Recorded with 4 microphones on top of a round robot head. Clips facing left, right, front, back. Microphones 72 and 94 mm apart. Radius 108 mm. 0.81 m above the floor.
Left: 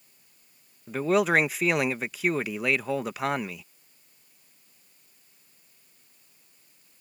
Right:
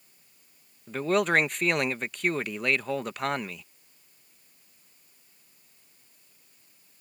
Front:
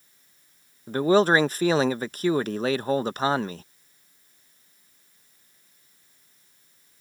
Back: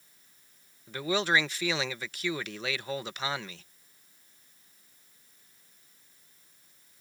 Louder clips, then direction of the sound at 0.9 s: Left 2 dB, front 9 dB; 10° left.